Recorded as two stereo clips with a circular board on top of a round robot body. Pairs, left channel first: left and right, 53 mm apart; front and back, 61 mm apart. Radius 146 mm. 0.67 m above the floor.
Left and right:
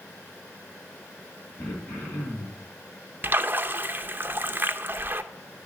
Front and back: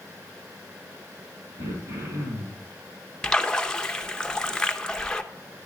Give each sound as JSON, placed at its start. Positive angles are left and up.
{"t": 1.6, "sound": "throat clearing", "azimuth_deg": 145, "distance_m": 4.5}
{"t": 3.2, "sound": "a splash", "azimuth_deg": -70, "distance_m": 0.9}